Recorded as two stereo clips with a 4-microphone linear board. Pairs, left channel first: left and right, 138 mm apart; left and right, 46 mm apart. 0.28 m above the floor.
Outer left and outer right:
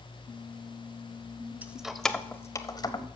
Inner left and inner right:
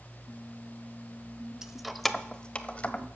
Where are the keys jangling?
10° right (ahead or behind), 0.7 m; by 3.1 s 35° left (ahead or behind), 0.9 m.